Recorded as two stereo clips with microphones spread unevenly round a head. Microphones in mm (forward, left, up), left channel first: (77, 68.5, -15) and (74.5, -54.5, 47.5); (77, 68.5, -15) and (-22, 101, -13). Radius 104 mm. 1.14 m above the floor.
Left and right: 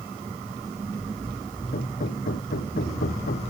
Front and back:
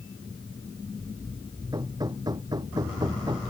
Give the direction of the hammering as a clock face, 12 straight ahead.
8 o'clock.